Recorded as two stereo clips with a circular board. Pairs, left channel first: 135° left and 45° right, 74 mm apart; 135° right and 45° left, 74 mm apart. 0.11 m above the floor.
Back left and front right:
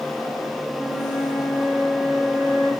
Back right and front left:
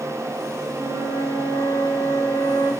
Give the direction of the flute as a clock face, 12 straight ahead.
11 o'clock.